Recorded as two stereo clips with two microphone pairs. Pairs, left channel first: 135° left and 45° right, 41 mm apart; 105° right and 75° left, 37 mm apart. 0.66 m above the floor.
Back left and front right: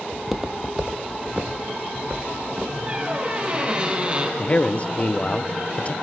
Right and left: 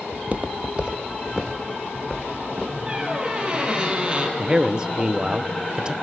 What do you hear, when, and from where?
0.1 s footsteps: 50° left, 1.2 m; by 2.8 s 5° right, 4.5 m
2.9 s a squeak: 15° left, 3 m
4.4 s a man speaking: 115° left, 0.6 m